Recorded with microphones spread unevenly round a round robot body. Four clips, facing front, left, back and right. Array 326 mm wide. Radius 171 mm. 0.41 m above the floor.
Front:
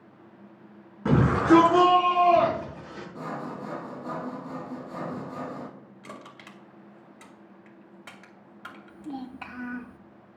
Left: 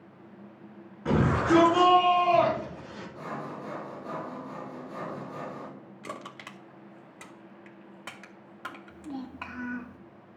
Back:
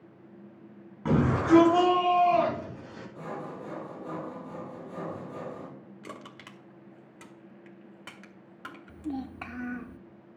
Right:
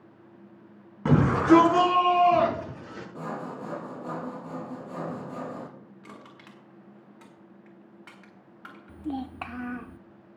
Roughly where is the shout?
Right.